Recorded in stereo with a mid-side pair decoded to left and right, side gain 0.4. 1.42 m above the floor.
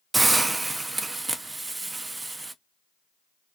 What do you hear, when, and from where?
0.1 s a hiss: 30° right, 0.5 m